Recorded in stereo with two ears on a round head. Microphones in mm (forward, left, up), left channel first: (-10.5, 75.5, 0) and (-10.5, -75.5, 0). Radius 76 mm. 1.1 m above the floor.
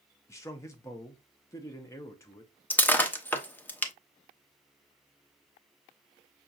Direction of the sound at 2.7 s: 10° left (ahead or behind).